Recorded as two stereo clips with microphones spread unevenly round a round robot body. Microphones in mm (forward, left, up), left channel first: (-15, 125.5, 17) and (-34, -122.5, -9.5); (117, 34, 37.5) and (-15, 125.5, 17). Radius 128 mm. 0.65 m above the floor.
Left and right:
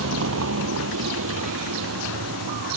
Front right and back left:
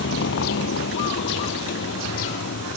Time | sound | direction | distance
0.0 | a vehicle | 50° right | ?